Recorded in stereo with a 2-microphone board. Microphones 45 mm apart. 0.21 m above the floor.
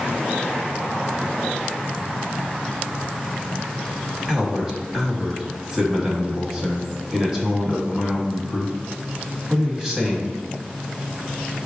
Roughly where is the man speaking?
Centre.